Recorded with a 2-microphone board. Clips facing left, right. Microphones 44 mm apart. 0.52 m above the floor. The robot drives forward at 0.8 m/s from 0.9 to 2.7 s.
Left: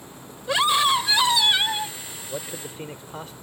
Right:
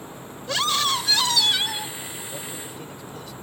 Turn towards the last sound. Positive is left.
turn(degrees=45)  # may be behind; listen again after turning